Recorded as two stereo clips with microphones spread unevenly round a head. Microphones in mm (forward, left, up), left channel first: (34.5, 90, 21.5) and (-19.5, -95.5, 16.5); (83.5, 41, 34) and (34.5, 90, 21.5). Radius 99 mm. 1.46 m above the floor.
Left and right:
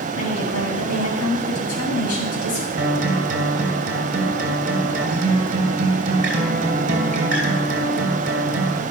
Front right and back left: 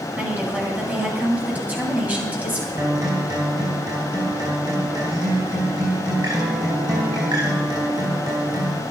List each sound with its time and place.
0.1 s a woman speaking: 65° left, 7.5 m
2.8 s a guitar: 155° right, 2.5 m